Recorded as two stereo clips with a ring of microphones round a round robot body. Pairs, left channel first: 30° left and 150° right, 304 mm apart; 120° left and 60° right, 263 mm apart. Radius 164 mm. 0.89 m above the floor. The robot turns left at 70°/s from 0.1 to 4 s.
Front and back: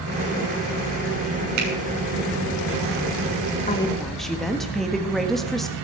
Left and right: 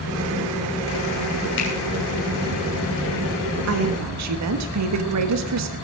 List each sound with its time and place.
1.6 s a finger snap: 175° left, 6.5 m; by 1.7 s 165° left, 6.5 m
3.7 s a woman speaking: 35° right, 1.4 m; by 5.7 s 60° right, 1.4 m